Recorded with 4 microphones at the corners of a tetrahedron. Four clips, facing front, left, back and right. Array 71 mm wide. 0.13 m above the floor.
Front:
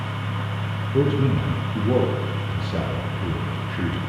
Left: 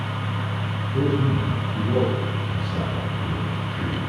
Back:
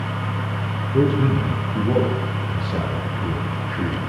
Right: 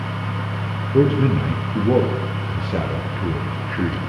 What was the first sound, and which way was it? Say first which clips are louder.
A man speaking: right 6 dB, back 2 dB; 90° right.